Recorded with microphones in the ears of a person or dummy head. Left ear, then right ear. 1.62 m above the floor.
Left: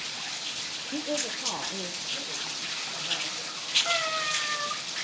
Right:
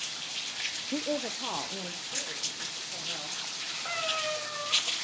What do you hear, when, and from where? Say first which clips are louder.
0.9 s a woman speaking: left 4 dB; 60° right (ahead or behind), 0.5 m; by 3.4 s 20° right (ahead or behind), 3.5 m
3.9 s a cat meowing: left 4 dB; 15° right (ahead or behind), 1.9 m